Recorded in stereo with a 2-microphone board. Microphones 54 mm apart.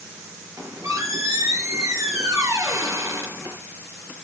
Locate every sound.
0.6 s a squeak: 85° right, 6.5 m